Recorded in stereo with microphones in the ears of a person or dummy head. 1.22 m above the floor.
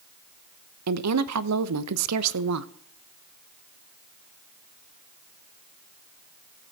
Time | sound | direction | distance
0.9 | a woman speaking | 85° right | 0.7 m